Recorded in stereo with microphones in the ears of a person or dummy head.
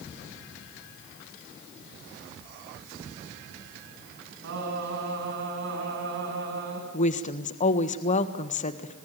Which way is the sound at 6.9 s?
35° left (ahead or behind).